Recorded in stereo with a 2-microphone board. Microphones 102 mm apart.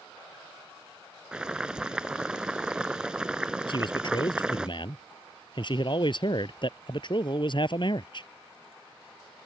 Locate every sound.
1.3 s boiling: 10° right (ahead or behind)
3.7 s a man speaking: 50° left (ahead or behind)